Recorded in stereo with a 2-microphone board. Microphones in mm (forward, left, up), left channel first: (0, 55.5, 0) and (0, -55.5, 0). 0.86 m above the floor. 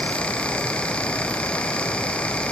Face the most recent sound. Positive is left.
No sound to turn to.